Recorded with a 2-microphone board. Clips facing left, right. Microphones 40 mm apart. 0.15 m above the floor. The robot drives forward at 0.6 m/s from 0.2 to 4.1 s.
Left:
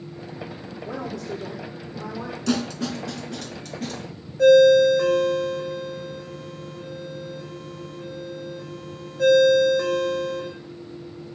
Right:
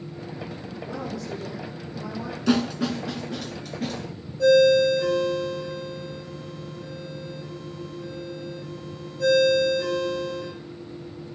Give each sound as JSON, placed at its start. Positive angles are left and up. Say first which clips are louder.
{"t": 0.8, "sound": "a woman speaking", "louder": "left 2 dB", "side_deg": 65, "distance_m": 6.5}
{"t": 2.5, "sound": "a snare drum", "louder": "right 3 dB", "side_deg": -15, "distance_m": 1.2}
{"t": 4.4, "sound": "a ringtone", "louder": "left 4 dB", "side_deg": 75, "distance_m": 4.0}